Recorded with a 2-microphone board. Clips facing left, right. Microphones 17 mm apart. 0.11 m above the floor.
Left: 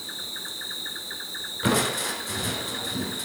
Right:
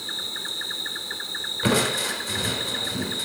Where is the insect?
10° right (ahead or behind), 1.0 m.